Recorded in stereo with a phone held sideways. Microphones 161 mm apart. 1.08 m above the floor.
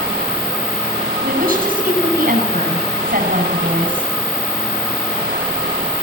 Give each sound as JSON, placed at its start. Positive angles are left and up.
{"t": 1.2, "sound": "a woman speaking", "side_deg": -60, "distance_m": 8.5}